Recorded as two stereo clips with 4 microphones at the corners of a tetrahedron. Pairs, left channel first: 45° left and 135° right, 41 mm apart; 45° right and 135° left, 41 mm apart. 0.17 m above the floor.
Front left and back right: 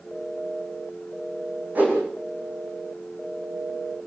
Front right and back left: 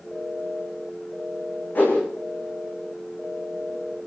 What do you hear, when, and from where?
1.8 s a whoosh: 85° right, 8.5 m